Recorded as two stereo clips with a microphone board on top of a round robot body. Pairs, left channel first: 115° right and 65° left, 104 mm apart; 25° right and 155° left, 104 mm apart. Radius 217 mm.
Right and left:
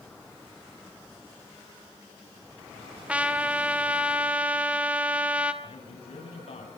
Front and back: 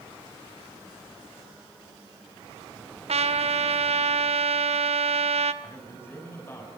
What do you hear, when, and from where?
3.1 s a trumpet: 145° left, 2 m
5.6 s a man speaking: 90° right, 7.5 m